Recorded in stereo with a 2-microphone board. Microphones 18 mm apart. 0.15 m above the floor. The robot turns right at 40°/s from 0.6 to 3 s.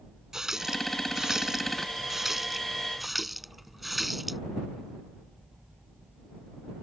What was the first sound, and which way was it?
A running tap, 30° right (ahead or behind).